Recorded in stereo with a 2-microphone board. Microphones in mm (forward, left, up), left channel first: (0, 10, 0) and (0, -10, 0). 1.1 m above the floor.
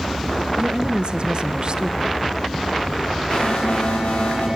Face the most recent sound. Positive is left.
turn(degrees=75)  # may be behind; listen again after turning